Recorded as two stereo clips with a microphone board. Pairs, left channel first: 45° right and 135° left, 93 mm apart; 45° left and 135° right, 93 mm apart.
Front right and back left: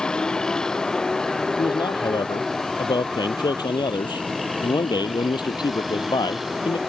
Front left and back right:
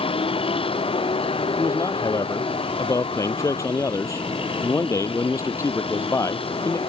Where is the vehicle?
35° left; by 6.9 s 45° left.